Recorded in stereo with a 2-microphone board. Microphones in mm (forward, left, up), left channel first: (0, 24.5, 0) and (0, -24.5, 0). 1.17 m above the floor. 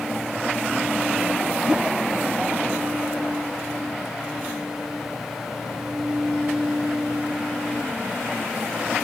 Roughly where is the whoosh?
Right.